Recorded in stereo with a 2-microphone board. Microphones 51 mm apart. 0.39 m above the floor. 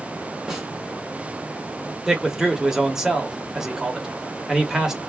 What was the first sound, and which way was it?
A snare drum, 10° right (ahead or behind).